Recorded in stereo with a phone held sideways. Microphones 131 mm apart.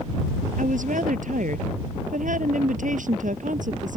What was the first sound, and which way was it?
A woman speaking, 80° right.